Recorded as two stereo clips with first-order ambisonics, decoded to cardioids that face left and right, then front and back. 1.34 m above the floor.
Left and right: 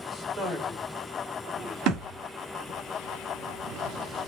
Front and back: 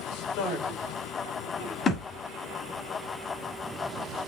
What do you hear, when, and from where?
0.1 s a man speaking: 5° left, 5.5 m
1.9 s a thud: 65° right, 1.4 m